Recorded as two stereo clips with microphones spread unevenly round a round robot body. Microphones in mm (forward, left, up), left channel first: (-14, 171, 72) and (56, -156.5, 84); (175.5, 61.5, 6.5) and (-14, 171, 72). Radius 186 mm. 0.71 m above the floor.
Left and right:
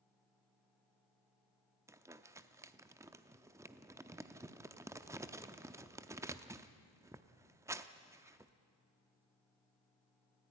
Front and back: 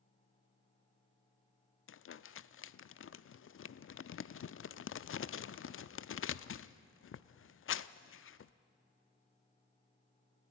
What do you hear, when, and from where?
1.9 s crumpling: 5° left, 0.6 m